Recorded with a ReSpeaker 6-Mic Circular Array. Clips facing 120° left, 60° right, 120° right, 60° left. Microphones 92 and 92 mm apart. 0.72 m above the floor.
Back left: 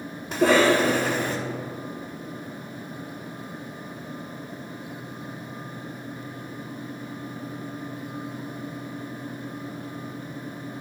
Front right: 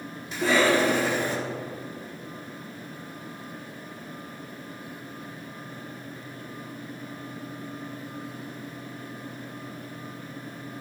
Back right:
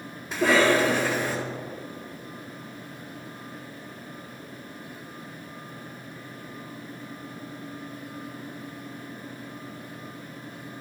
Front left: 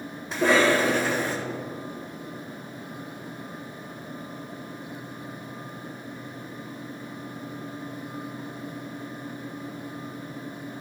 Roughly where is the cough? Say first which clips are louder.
Back left 3 dB, even; behind left.